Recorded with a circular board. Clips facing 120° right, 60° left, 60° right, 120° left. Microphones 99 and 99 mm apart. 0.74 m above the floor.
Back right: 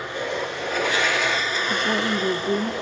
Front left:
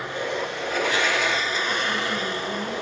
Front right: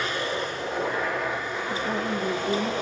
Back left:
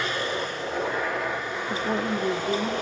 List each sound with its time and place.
1.7 s a woman speaking: 170° right, 0.9 m; by 2.7 s 150° right, 1.5 m